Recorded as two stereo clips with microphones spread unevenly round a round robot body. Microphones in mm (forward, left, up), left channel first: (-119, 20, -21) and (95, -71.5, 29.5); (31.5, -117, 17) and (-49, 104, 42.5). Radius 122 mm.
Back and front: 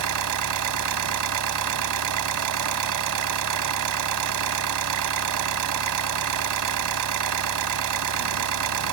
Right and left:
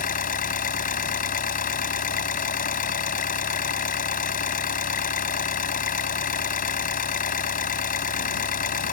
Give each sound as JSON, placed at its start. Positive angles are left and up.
{"t": 0.0, "sound": "an engine running", "azimuth_deg": -10}